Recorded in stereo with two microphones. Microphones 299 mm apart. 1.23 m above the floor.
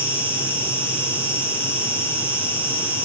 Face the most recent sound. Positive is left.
turn(degrees=-5)  # may be behind; listen again after turning